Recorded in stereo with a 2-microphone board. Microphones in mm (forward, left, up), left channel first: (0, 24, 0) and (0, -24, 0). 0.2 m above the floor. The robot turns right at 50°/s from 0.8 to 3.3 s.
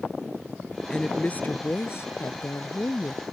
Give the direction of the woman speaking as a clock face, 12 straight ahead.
12 o'clock.